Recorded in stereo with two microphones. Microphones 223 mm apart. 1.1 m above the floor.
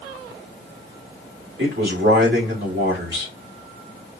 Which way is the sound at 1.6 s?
60° right (ahead or behind).